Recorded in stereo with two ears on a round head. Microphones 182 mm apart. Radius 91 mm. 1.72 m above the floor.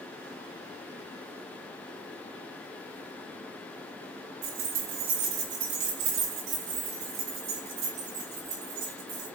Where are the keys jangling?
70° right (ahead or behind), 2.5 m.